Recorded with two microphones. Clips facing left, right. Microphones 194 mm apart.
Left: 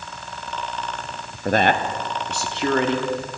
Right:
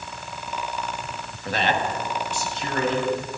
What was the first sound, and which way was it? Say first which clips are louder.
A man speaking: left 5 dB; 45° left (ahead or behind).